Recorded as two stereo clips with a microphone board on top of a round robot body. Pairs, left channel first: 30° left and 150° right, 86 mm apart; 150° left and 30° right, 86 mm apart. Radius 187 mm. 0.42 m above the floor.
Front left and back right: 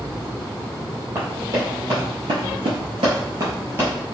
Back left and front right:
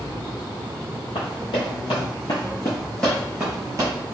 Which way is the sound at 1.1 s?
155° left.